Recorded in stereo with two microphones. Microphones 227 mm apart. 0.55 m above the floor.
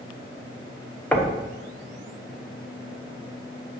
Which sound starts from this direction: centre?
Knocking, at 1.1 s.